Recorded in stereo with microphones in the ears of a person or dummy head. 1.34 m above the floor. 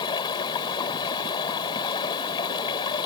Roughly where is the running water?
Left.